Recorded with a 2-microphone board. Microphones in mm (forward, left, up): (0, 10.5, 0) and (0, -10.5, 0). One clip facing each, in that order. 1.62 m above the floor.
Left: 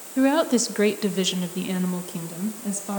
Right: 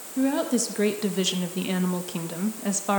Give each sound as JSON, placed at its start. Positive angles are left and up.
{"t": 0.2, "sound": "a woman speaking", "side_deg": 35, "distance_m": 2.0}